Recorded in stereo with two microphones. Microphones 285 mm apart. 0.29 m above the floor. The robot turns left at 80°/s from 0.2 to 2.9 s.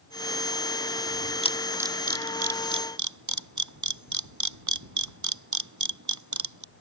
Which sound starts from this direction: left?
A camera shutter, at 1.4 s.